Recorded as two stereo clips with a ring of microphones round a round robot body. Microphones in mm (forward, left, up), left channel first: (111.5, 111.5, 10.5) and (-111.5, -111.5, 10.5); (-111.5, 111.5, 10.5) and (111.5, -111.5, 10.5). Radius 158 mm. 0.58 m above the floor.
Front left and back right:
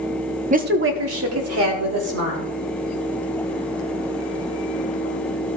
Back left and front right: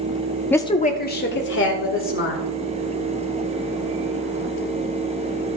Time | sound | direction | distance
0.5 | a woman speaking | 145° right | 0.7 m